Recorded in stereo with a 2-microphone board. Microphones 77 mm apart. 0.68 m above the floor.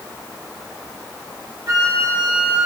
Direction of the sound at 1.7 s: 50° right (ahead or behind).